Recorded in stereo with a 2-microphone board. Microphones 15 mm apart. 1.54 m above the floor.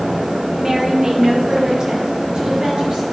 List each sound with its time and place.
0.6 s a woman speaking: 30° right (ahead or behind), 1.0 m; by 3.0 s 65° right (ahead or behind), 4.5 m